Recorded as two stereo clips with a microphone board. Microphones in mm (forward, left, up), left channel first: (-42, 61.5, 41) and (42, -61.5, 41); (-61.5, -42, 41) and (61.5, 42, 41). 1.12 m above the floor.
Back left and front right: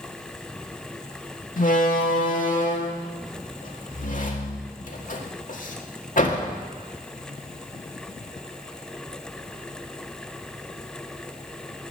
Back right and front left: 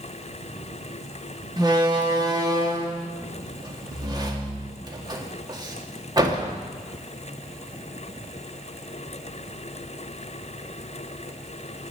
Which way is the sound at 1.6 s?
95° left.